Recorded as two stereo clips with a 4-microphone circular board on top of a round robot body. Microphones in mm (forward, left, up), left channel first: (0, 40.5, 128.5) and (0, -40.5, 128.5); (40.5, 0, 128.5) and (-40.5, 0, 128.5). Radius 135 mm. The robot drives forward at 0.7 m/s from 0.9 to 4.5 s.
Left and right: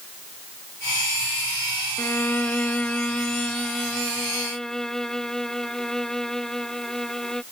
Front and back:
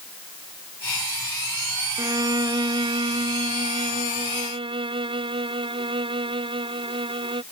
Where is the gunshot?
I don't hear a gunshot.